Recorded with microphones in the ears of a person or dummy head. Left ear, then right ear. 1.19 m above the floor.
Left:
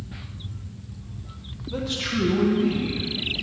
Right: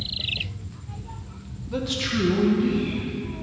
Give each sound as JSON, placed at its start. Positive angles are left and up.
{"t": 1.7, "sound": "a man speaking", "side_deg": -20, "distance_m": 0.8}